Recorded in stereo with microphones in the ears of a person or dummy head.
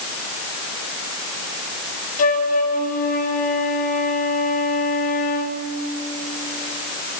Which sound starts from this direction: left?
A flute, at 2.2 s.